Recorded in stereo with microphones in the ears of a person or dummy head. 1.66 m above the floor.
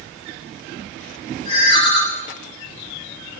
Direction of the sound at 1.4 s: 30° left (ahead or behind).